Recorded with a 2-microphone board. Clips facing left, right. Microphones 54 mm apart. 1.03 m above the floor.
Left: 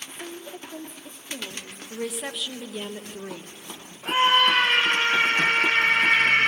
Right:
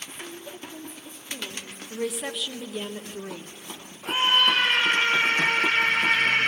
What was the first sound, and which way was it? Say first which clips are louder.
A woman speaking: left 2 dB; 45° left (ahead or behind).